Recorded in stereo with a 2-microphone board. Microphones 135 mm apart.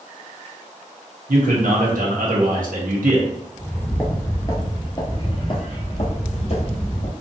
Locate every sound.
1.3 s a man speaking: 85° right, 1.1 m
3.5 s footsteps: 10° left (ahead or behind), 1.3 m; by 7.1 s 55° left (ahead or behind), 2 m